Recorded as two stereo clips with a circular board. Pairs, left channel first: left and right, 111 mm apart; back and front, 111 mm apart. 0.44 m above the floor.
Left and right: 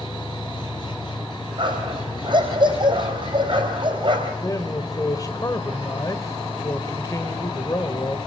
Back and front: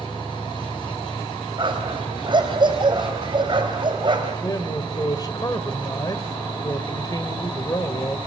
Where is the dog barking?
45° right, 4 m.